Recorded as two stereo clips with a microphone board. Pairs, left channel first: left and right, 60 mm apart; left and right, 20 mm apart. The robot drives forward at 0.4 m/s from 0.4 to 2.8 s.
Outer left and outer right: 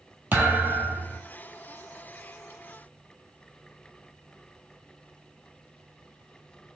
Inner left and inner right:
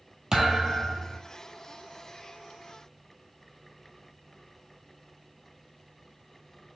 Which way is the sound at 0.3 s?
35° right (ahead or behind).